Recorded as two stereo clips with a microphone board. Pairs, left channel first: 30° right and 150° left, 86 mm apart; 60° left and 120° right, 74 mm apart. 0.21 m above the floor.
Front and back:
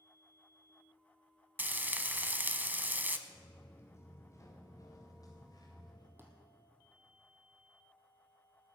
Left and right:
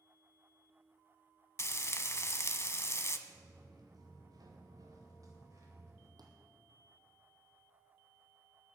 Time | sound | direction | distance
1.6 | frying | 90° left | 0.8 m
3.3 | footsteps | 100° right | 2.5 m
6.2 | a thud | 145° right | 2.5 m